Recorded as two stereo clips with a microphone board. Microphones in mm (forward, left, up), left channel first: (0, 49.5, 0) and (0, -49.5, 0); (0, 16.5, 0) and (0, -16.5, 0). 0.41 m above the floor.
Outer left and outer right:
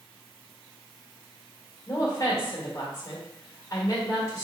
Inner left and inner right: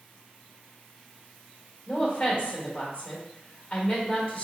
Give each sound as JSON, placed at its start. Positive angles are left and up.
{"t": 1.9, "sound": "a woman speaking", "side_deg": 35, "distance_m": 1.6}